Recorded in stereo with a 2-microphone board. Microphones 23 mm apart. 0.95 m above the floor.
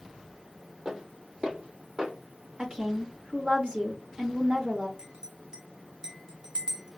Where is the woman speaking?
60° right (ahead or behind), 1.0 m.